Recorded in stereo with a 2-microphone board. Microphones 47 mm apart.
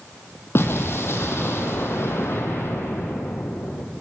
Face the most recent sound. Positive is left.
turn(degrees=60)  # may be behind; listen again after turning